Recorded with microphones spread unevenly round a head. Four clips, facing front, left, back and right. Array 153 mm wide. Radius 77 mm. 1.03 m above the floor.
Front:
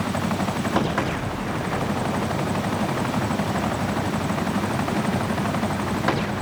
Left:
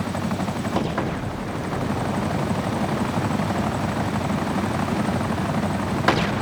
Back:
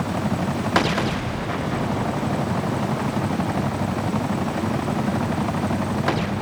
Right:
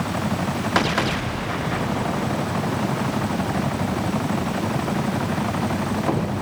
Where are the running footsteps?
I don't hear running footsteps.